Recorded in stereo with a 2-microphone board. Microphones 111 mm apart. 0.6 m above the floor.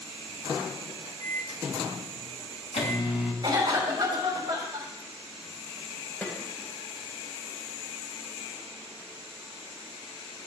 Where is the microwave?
75° left (ahead or behind), 2.5 m.